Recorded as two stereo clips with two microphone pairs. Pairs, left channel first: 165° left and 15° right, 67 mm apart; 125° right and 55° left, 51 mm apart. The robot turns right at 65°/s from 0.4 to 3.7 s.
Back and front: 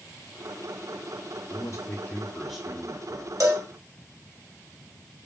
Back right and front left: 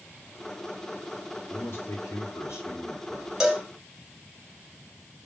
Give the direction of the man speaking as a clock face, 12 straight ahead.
6 o'clock.